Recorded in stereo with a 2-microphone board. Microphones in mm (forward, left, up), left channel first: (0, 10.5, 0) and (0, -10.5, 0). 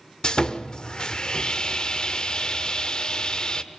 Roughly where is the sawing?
Left.